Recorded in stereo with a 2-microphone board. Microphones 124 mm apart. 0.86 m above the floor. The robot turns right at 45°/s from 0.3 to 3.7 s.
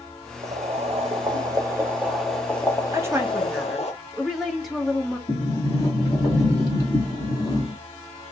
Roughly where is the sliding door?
Left.